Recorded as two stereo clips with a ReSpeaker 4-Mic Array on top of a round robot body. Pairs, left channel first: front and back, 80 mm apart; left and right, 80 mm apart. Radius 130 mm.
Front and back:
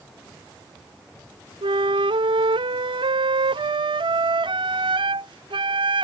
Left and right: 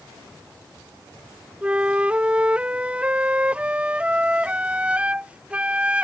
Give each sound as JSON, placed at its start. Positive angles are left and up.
{"t": 1.6, "sound": "a flute", "azimuth_deg": -165}